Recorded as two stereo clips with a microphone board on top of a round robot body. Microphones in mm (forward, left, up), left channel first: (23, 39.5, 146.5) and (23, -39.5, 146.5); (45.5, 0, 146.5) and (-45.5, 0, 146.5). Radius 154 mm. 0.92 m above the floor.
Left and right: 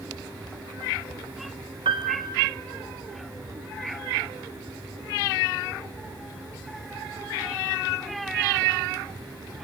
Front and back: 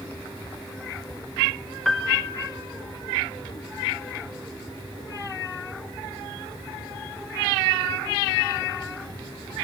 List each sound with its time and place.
1.9 s a piano: 85° right, 1.2 m